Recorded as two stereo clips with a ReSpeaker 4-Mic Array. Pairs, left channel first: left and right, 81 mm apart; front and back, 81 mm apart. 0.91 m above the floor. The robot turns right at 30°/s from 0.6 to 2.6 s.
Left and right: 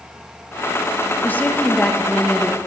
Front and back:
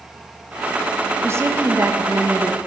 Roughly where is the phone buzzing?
No phone buzzing in this recording.